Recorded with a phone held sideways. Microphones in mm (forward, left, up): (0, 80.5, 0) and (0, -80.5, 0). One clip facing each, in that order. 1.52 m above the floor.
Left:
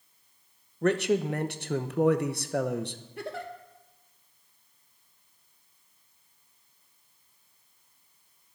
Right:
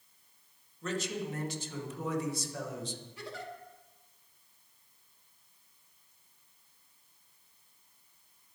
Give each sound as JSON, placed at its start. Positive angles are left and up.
{"t": 0.8, "sound": "a man speaking", "side_deg": 65, "distance_m": 1.0}
{"t": 3.2, "sound": "a giggle", "side_deg": 55, "distance_m": 1.4}